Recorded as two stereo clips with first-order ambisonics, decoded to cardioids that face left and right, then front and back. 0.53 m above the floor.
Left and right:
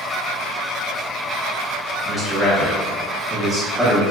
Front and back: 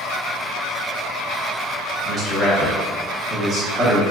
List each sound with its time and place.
2.0 s a man speaking: straight behind, 0.7 m